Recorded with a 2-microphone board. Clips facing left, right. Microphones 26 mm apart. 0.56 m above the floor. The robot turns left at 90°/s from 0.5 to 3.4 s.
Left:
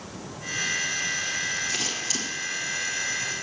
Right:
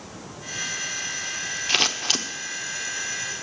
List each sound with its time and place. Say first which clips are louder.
1.7 s scissors: right 6 dB; 45° right (ahead or behind), 1.0 m; by 2.2 s 55° right (ahead or behind), 1.0 m